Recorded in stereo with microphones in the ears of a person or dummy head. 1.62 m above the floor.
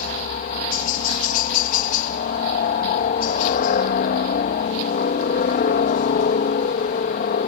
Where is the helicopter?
45° left (ahead or behind).